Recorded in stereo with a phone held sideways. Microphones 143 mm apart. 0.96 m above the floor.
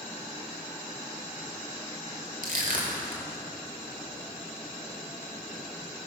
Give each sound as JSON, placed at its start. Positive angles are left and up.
{"t": 2.4, "sound": "crushing", "side_deg": -80, "distance_m": 3.0}